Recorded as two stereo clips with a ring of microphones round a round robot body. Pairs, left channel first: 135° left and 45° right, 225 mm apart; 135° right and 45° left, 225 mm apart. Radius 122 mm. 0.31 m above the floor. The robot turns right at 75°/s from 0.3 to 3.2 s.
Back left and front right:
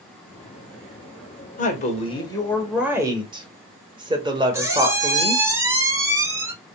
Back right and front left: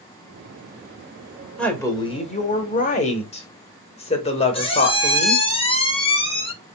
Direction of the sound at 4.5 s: 110° right.